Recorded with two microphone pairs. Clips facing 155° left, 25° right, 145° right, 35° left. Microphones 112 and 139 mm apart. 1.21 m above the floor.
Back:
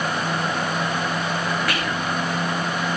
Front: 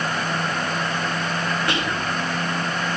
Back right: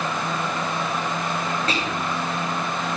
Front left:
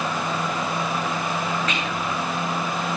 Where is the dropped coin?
No dropped coin in this recording.